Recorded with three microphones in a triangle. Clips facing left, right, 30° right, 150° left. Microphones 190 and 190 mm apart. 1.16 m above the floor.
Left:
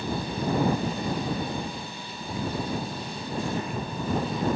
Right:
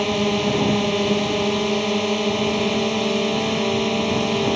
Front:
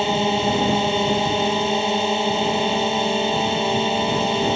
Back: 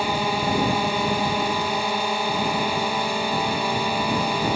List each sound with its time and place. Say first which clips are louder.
0.0 s a drone: right 10 dB, front 4 dB; 95° right